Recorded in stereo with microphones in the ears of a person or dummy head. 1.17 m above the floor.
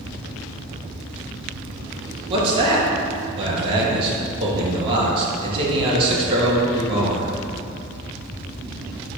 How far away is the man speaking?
About 1.7 m.